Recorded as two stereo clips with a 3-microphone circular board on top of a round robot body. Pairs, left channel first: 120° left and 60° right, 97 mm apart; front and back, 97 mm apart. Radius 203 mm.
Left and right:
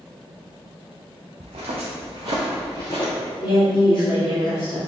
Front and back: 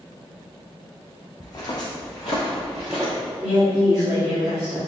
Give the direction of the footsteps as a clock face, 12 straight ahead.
2 o'clock.